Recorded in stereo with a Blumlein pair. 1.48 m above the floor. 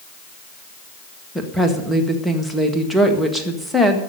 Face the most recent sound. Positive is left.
turn(degrees=0)